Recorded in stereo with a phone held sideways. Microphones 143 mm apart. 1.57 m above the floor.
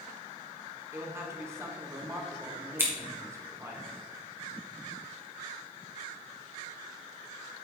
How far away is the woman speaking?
About 1.7 m.